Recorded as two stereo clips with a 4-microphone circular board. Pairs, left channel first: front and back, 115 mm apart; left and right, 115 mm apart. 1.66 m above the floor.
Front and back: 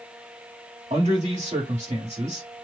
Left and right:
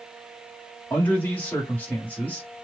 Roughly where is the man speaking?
Behind.